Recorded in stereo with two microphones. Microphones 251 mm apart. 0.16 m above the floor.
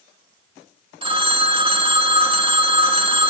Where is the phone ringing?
20° right (ahead or behind), 0.6 m.